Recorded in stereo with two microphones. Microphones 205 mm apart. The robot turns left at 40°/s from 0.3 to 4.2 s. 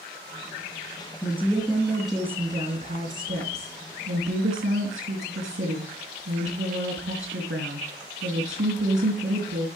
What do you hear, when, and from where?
1.2 s a woman speaking: 35° left, 4 m; by 9.7 s 85° right, 4 m